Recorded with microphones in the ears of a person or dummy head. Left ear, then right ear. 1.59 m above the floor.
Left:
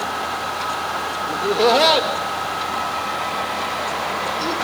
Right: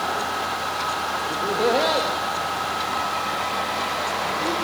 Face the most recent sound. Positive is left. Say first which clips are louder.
# left 6 dB
turn(degrees=40)  # may be behind; listen again after turning